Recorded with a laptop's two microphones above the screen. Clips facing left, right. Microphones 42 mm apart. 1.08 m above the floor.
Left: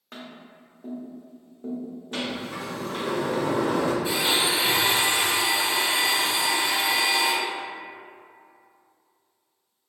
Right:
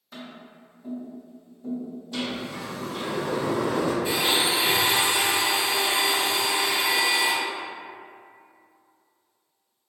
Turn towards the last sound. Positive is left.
turn(degrees=-20)  # may be behind; listen again after turning